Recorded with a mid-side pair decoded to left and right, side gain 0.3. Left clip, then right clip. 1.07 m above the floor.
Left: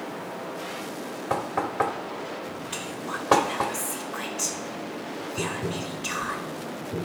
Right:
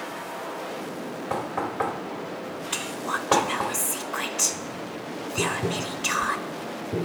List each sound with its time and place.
1.3 s knocking: 50° left, 1.6 m
2.7 s whispering: 55° right, 0.8 m
5.4 s tapping: 35° right, 1.0 m